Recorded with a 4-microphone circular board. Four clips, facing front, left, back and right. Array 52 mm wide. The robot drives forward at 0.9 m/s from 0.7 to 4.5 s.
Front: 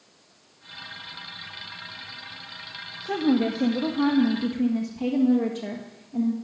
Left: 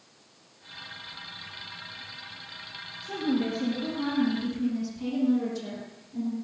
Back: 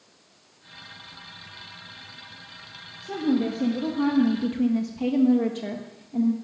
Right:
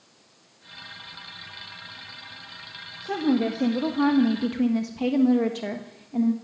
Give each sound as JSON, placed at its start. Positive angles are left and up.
{"t": 3.0, "sound": "a woman speaking", "azimuth_deg": -40, "distance_m": 1.8}